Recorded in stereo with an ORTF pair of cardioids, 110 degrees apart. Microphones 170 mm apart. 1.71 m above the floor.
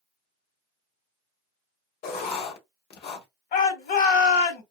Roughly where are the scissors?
No scissors in this recording.